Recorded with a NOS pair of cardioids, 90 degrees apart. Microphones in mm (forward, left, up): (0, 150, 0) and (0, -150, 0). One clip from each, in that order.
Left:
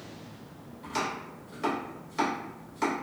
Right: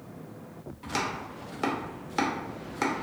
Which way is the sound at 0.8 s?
55° right.